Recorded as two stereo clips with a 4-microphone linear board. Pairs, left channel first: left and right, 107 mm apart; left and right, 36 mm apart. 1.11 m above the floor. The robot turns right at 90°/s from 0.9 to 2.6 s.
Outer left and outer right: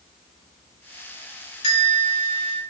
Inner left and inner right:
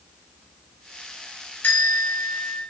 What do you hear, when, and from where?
1.6 s a bell: 90° left, 1.8 m; by 2.6 s 175° left, 1.8 m